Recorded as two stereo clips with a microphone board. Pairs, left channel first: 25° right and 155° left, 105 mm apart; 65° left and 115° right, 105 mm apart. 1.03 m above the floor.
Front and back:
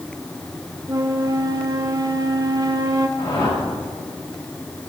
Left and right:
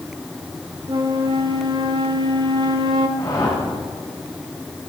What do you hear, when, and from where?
0.9 s a flute: 150° right, 1.4 m
3.2 s a whoosh: 15° left, 6.5 m